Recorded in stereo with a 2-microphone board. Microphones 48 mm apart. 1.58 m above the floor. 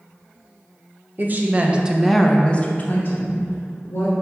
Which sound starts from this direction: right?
A woman speaking, at 1.2 s.